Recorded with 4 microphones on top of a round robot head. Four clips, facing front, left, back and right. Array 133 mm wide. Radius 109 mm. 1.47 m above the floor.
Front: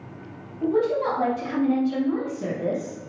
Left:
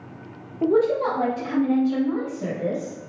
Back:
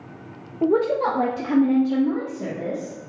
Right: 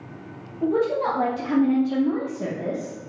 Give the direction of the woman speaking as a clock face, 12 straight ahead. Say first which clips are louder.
Left 2 dB, back 2 dB; 7 o'clock.